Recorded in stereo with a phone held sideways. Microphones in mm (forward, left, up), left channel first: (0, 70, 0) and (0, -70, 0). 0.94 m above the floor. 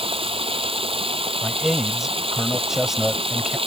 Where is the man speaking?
5° right (ahead or behind).